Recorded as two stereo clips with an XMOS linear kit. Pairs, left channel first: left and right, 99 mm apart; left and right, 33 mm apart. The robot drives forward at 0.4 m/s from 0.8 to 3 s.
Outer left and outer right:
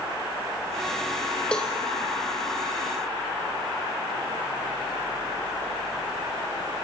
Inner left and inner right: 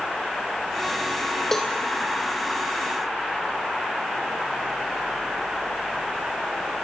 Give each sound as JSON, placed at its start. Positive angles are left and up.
{"t": 1.5, "sound": "a cowbell", "side_deg": 10, "distance_m": 3.5}